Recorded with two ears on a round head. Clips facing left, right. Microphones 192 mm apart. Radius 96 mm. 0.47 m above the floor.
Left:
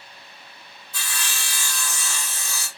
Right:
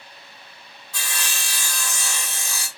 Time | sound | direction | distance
0.9 | sawing | 60° right (ahead or behind) | 1.5 m